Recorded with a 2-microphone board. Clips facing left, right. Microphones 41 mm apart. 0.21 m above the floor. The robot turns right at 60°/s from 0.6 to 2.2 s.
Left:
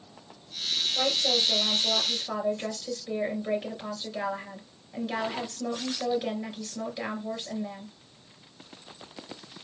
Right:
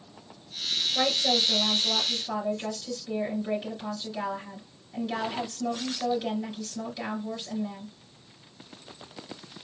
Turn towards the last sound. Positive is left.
turn(degrees=15)